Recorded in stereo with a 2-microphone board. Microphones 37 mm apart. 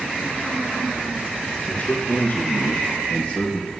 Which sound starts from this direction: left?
A man speaking, at 1.7 s.